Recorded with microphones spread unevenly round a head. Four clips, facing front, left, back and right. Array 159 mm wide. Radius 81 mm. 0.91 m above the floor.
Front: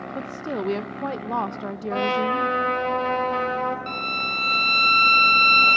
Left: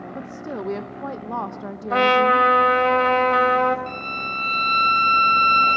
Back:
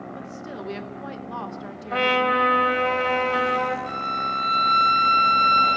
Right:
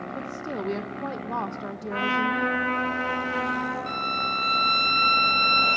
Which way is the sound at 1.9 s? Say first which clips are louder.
Left 9 dB, back 2 dB; 90° left.